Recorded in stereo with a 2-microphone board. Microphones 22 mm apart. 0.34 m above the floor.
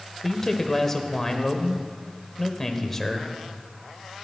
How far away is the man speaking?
About 1.4 m.